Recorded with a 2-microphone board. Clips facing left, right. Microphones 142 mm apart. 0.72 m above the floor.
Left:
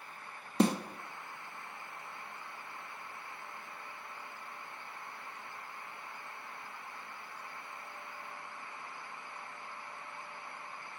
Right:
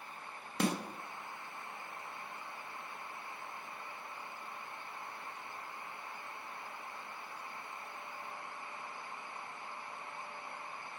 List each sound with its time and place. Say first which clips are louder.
0.6 s a snare drum: left 6 dB; 25° left (ahead or behind), 0.8 m